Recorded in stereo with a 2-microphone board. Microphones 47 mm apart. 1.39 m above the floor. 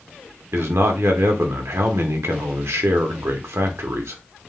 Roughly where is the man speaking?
Right.